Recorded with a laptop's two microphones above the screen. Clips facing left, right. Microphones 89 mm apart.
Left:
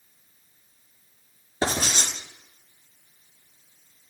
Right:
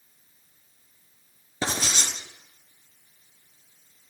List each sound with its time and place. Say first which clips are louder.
1.6 s writing: left 3 dB; 50° left (ahead or behind), 6 m